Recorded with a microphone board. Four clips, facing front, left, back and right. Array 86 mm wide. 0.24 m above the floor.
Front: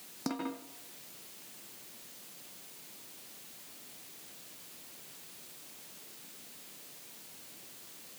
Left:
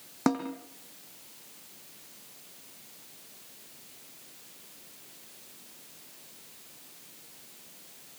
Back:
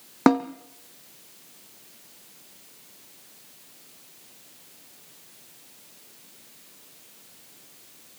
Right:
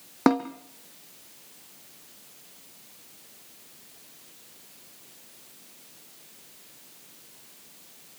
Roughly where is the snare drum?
Behind right.